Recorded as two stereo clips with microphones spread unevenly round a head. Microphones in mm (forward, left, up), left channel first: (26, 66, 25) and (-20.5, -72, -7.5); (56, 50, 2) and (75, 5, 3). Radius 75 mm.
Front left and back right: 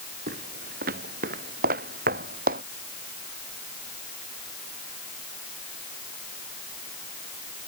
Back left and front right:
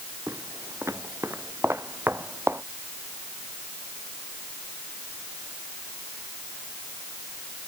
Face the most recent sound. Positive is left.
turn(degrees=-145)